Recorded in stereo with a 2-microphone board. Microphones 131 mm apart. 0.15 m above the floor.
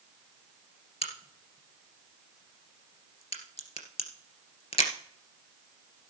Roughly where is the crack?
Left.